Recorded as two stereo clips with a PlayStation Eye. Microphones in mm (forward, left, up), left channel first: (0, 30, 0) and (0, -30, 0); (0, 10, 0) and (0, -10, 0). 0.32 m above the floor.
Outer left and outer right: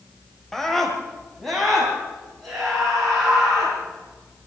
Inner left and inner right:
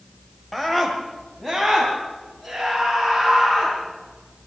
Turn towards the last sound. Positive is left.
turn(degrees=0)  # may be behind; listen again after turning